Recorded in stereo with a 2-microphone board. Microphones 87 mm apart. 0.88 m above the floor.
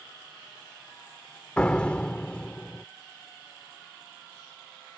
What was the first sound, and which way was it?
A door slam, 15° left (ahead or behind).